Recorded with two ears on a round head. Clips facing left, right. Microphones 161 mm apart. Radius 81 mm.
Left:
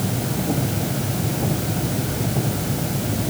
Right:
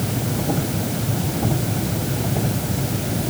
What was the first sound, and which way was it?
Only background noise.